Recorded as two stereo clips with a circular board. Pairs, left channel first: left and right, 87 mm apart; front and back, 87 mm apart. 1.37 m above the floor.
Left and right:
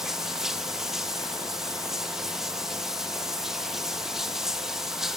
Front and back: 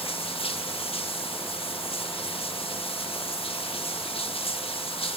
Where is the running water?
5° right, 1.8 m.